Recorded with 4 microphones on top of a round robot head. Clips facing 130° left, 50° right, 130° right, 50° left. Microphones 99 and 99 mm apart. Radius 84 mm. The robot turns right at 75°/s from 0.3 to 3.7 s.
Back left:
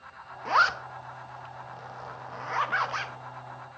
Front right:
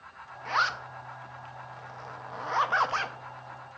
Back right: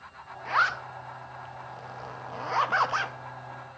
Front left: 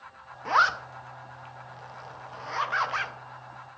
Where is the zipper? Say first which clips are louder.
Back left 5 dB, front left 3 dB; 90° left, 0.6 m; by 3.1 s 65° right, 0.6 m.